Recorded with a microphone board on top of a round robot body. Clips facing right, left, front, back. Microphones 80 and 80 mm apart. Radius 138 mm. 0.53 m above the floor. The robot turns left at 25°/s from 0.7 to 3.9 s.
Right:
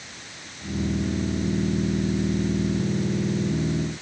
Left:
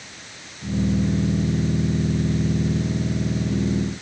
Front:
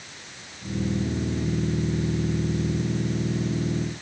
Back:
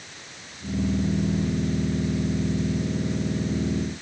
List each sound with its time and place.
Only background noise.